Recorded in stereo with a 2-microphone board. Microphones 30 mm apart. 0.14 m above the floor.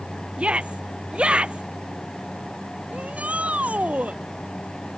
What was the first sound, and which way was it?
A shout, 40° right (ahead or behind).